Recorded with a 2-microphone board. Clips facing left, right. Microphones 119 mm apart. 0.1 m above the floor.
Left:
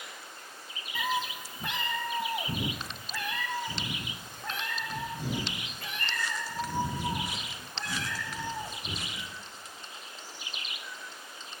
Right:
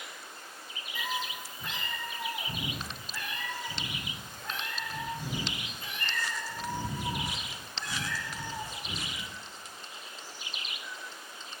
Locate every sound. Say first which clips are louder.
0.9 s a cat meowing: left 4 dB; 60° left (ahead or behind), 0.7 m; by 9.3 s 65° left (ahead or behind), 5.5 m